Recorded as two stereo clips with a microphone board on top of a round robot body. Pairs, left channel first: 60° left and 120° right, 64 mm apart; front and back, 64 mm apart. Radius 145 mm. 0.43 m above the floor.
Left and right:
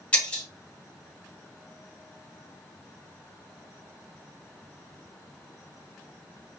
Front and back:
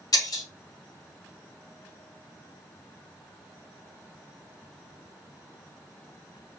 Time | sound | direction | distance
0.1 | breaking glass | 10° right | 1.1 m